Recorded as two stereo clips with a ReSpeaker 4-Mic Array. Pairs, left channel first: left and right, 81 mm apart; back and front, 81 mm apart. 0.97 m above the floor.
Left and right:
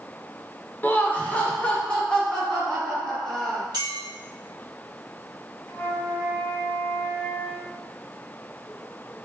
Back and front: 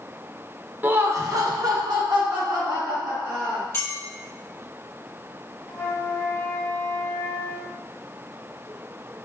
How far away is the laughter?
About 0.5 m.